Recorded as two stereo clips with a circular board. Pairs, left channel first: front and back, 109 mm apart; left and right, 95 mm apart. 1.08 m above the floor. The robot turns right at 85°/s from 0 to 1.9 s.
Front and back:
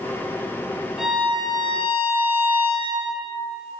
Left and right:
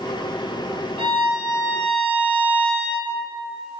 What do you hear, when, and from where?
1.0 s a violin: 95° right, 2.5 m; by 3.1 s 15° right, 2.5 m